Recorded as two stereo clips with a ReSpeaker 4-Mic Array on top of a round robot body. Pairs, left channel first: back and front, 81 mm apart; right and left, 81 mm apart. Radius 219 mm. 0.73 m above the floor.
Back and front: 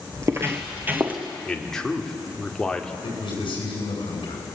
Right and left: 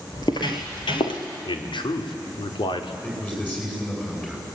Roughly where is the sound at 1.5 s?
Right.